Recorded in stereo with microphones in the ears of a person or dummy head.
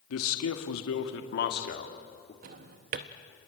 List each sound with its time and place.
0.1 s a man speaking: 80° left, 1.9 m; by 2.3 s 40° left (ahead or behind), 3 m
2.4 s a drawer: 40° right (ahead or behind), 0.7 m